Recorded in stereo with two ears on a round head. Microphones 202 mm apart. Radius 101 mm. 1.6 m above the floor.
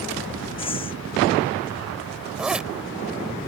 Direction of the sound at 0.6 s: 25° left (ahead or behind).